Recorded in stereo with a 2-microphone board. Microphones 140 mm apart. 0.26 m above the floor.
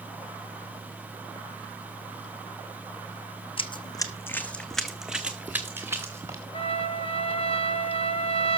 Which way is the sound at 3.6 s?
40° left (ahead or behind).